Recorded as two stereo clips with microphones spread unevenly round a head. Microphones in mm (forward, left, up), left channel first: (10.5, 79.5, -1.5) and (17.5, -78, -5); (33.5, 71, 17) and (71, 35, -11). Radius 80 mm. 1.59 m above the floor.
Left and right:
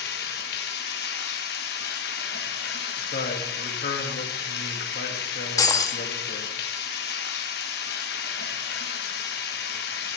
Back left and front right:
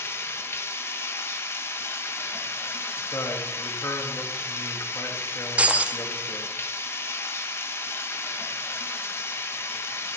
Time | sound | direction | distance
0.0 | running water | 120° left | 1.5 m
3.0 | a man speaking | 130° left | 2 m
5.6 | breaking glass | 70° left | 1.0 m